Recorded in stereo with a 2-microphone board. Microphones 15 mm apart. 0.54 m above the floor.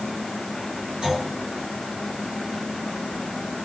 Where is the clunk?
85° right, 7.5 m.